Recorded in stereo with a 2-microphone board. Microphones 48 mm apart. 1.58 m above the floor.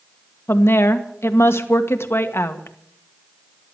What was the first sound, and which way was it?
A woman speaking, 65° left (ahead or behind).